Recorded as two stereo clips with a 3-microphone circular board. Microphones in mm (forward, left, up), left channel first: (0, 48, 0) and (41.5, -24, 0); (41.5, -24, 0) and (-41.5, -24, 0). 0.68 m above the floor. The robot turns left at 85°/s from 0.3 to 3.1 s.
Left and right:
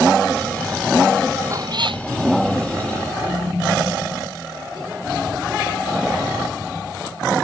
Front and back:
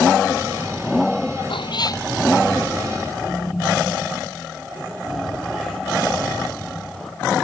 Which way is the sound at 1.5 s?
5° right.